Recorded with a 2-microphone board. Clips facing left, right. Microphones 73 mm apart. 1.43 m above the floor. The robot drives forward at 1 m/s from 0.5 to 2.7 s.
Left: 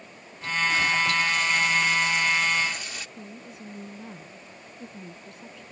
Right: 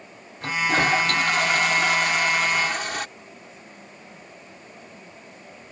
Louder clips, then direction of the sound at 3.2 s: Left 2 dB; 70° left (ahead or behind).